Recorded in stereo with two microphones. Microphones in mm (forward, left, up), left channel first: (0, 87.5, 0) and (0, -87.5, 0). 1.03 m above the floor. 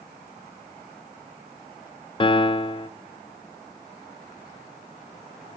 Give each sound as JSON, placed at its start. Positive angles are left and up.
{"t": 2.2, "sound": "a piano", "side_deg": 30, "distance_m": 0.5}